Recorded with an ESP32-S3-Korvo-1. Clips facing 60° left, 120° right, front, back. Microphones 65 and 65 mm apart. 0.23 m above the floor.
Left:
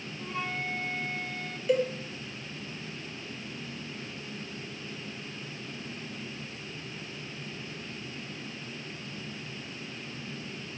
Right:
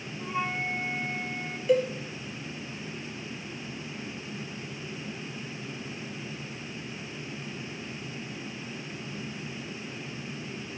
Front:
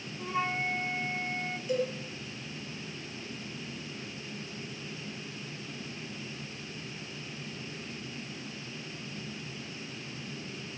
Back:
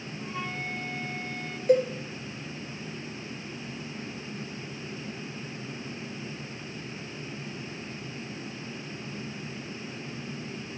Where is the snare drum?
No snare drum in this recording.